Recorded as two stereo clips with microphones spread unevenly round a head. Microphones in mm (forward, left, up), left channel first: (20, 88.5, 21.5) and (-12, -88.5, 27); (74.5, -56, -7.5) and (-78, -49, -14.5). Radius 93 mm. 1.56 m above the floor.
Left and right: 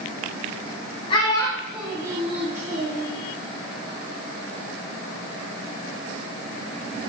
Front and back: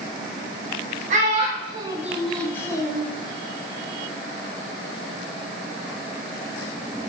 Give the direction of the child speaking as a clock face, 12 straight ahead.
7 o'clock.